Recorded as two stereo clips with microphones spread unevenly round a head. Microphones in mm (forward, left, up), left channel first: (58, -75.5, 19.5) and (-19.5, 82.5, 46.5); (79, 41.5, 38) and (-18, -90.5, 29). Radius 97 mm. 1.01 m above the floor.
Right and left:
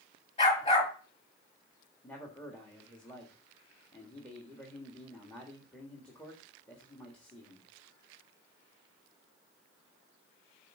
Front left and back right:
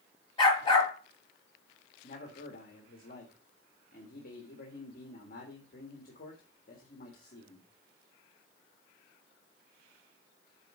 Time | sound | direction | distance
0.4 | a dog barking | 5° right | 5 m
2.0 | a man speaking | 20° left | 1.6 m